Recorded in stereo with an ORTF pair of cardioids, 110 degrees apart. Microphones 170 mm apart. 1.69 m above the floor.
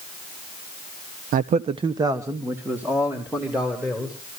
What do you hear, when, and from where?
1.3 s a man speaking: 65° right, 0.6 m; by 4.4 s 5° right, 4 m